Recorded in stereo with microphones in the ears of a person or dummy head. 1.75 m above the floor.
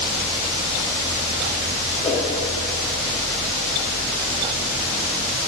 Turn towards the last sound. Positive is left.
turn(degrees=20)  # may be behind; listen again after turning